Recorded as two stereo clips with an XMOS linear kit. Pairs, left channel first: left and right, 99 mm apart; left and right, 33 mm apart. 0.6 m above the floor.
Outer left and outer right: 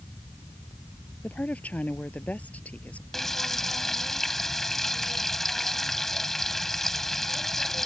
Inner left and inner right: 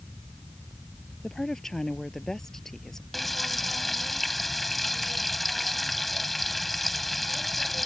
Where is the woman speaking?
15° left (ahead or behind).